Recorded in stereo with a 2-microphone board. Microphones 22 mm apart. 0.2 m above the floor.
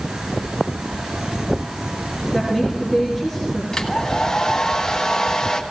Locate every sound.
2.3 s a woman speaking: centre (ahead or behind), 3.5 m
3.7 s a hair dryer: 30° left (ahead or behind), 1.7 m